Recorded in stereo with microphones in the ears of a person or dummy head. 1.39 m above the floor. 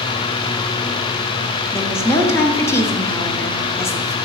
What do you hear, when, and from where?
1.7 s a woman speaking: 15° left (ahead or behind), 0.7 m